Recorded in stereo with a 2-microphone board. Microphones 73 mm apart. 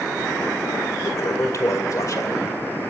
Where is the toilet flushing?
50° left (ahead or behind), 1.7 m.